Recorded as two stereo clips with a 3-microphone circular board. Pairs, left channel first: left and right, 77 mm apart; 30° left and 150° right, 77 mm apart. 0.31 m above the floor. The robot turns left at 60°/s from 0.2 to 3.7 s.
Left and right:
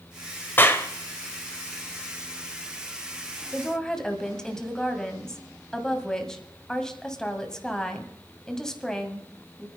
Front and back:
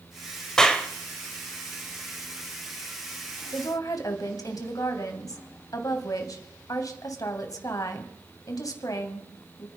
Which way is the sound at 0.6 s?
105° left.